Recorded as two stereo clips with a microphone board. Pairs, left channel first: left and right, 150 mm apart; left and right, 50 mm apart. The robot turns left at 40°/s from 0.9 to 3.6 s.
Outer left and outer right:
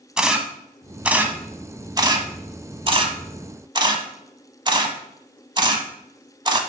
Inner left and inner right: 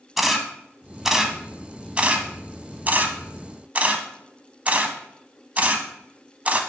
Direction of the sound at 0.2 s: 5° right (ahead or behind).